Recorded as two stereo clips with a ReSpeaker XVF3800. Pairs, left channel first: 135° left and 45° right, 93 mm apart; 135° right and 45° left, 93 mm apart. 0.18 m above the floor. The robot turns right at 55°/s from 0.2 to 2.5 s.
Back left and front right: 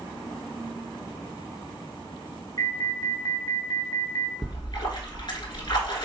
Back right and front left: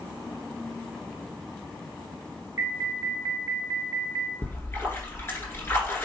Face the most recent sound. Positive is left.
turn(degrees=165)